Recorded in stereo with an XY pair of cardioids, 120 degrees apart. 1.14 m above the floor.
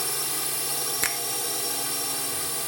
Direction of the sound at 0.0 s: 5° left.